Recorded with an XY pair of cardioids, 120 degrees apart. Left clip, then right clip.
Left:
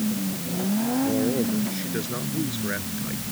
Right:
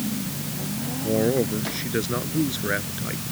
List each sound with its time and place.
1.0 s a man speaking: 25° right